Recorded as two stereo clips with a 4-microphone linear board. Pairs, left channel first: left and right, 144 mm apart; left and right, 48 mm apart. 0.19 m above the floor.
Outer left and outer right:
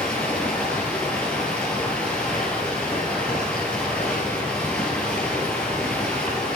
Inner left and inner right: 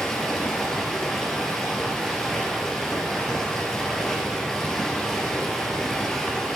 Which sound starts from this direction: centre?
Running water, at 0.0 s.